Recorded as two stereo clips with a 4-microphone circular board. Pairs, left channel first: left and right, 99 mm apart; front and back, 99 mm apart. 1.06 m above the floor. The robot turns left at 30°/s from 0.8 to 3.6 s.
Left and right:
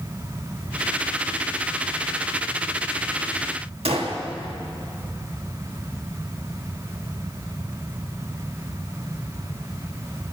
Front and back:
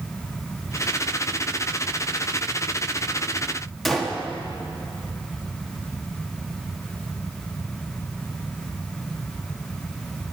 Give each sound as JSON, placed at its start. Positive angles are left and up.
{"t": 3.9, "sound": "a gunshot", "azimuth_deg": -90, "distance_m": 1.6}